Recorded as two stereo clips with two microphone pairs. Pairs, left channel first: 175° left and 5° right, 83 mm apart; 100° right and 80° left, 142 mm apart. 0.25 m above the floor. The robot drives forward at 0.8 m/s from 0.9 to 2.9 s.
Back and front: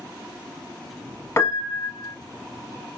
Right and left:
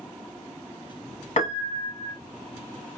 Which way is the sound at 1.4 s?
135° right.